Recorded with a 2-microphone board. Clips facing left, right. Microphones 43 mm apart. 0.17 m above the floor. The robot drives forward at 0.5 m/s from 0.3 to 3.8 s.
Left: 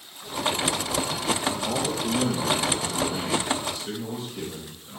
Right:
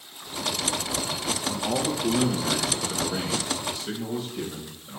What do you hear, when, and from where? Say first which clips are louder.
1.4 s a man speaking: even; 5° right (ahead or behind), 4 m; by 5.0 s centre (ahead or behind), 5 m